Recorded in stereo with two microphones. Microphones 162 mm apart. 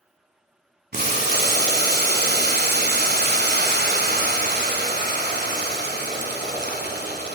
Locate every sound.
0.9 s boiling: 75° right (ahead or behind), 0.8 m